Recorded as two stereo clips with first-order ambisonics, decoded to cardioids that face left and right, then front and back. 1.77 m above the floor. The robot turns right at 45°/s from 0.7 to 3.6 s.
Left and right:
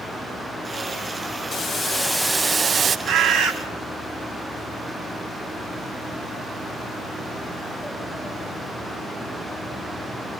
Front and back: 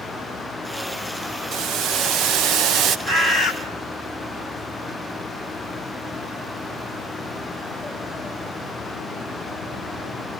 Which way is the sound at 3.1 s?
125° right.